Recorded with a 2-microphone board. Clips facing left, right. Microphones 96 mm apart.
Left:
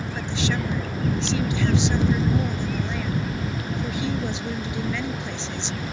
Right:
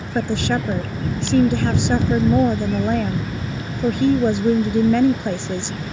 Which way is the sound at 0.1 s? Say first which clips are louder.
Right 8 dB; 55° right (ahead or behind).